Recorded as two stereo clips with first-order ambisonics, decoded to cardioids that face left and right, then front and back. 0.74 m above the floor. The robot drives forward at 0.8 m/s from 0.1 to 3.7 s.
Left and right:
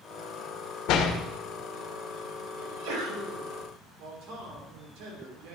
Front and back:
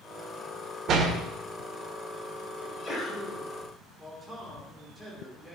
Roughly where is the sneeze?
Right.